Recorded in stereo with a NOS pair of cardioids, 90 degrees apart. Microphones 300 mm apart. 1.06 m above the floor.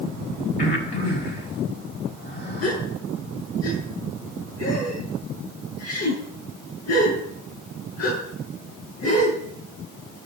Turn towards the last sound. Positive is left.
turn(degrees=50)